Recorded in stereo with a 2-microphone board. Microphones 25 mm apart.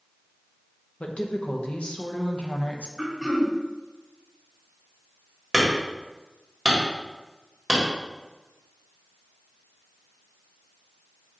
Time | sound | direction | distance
1.0 | a woman speaking | 55° left (ahead or behind) | 0.9 m
3.0 | throat clearing | 5° right (ahead or behind) | 2 m
5.5 | hammering | centre (ahead or behind) | 1.9 m